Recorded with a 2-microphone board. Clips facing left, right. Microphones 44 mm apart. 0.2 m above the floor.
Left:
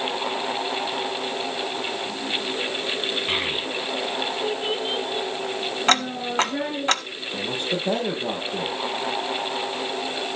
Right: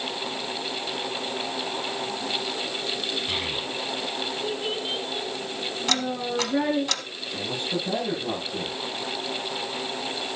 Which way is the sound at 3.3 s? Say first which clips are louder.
Left 4 dB; 35° left (ahead or behind).